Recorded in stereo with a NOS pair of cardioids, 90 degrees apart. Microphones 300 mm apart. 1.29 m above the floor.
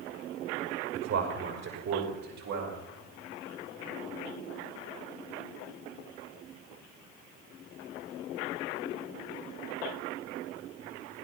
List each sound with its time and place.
0.9 s a man speaking: 60° right, 5.5 m; by 2.8 s 75° right, 6 m